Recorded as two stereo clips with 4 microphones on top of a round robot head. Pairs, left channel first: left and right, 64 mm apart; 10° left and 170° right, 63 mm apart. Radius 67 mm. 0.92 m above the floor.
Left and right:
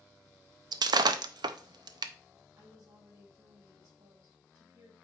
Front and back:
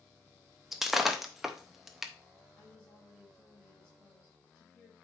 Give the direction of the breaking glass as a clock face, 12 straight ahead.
3 o'clock.